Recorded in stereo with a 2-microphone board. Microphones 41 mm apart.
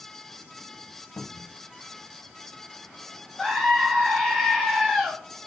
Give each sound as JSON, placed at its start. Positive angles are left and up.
{"t": 1.2, "sound": "a cupboard door", "side_deg": 40, "distance_m": 1.4}
{"t": 3.4, "sound": "a scream", "side_deg": 5, "distance_m": 5.0}